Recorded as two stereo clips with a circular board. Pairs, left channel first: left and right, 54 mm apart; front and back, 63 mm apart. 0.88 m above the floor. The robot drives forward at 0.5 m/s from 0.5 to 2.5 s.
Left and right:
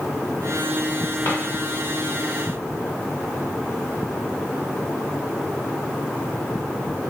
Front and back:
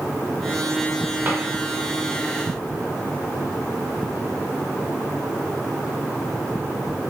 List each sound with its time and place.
1.2 s a drawer: 130° left, 1.6 m